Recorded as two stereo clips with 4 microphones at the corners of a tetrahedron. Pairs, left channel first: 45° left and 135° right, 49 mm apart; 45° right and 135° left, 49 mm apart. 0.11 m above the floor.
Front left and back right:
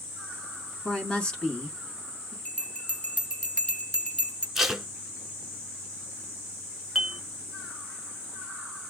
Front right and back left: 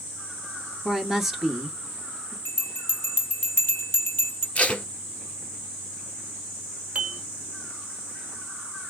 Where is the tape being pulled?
60° right, 0.7 m.